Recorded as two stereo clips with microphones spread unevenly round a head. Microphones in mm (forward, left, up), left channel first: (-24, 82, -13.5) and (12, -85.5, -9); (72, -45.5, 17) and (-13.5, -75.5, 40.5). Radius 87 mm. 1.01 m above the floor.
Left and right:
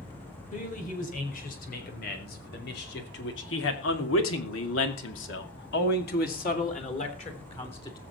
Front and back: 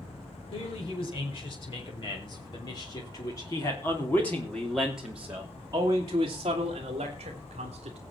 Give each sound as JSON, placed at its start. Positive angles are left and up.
{"t": 0.5, "sound": "a man speaking", "azimuth_deg": 55, "distance_m": 5.5}